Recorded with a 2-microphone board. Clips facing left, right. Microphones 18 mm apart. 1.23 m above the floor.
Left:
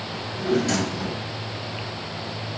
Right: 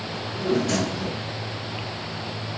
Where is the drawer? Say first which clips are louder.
Left 1 dB; 45° left (ahead or behind), 4 m.